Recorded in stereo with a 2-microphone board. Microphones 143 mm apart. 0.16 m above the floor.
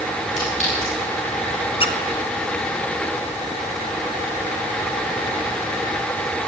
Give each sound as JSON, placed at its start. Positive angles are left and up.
{"t": 0.4, "sound": "a clink", "side_deg": 55, "distance_m": 8.0}
{"t": 1.8, "sound": "a squeak", "side_deg": 40, "distance_m": 0.9}